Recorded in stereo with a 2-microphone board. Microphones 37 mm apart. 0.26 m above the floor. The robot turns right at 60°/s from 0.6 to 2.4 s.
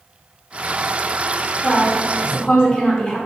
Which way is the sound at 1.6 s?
20° left (ahead or behind).